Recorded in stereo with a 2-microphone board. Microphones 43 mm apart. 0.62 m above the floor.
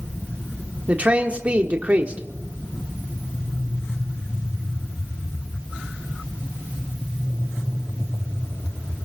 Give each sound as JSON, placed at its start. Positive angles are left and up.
{"t": 0.9, "sound": "a man speaking", "side_deg": -30, "distance_m": 1.3}